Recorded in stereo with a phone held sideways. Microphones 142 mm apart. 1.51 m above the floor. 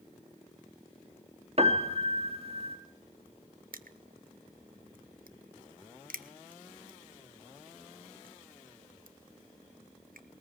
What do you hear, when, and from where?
1.6 s a piano: 45° right (ahead or behind), 1.9 m
3.7 s crushing: 90° right, 1.1 m